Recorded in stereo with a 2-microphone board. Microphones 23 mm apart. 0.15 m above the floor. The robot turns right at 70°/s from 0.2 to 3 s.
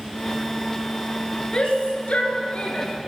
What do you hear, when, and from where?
1.5 s a shout: 45° left (ahead or behind), 2.5 m; by 2.9 s 25° left (ahead or behind), 2.5 m